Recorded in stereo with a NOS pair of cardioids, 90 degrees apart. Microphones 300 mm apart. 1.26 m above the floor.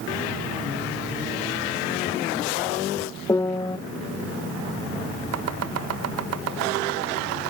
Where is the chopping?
55° right, 1.0 m.